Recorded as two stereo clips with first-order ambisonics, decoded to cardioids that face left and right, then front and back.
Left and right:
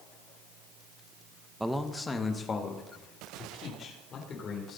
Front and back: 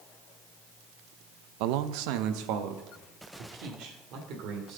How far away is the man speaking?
About 0.7 m.